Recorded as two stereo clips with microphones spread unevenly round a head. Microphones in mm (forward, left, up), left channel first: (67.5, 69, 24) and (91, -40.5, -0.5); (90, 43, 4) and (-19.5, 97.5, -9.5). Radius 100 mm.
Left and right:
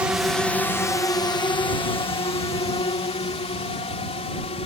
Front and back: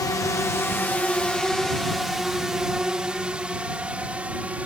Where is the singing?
I don't hear singing.